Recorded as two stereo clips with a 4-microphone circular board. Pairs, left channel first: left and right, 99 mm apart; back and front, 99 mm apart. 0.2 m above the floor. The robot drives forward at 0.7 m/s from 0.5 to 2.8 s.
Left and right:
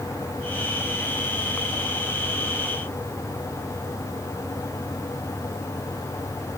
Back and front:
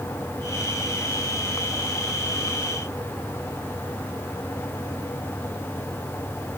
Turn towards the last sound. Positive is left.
No sound to turn to.